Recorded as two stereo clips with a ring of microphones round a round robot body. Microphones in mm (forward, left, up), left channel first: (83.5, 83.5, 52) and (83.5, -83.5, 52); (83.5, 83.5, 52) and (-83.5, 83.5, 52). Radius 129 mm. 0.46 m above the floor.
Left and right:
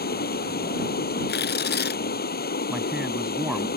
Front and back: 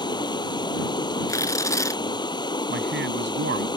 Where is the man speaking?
175° right.